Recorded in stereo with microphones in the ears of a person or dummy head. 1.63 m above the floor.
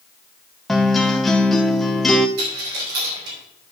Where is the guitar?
10° left (ahead or behind), 0.6 m.